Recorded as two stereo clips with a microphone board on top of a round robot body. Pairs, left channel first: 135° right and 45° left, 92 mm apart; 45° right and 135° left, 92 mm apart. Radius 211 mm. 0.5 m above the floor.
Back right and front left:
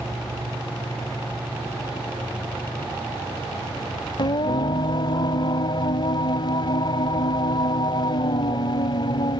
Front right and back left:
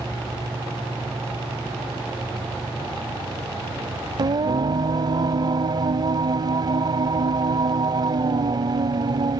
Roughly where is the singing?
Behind.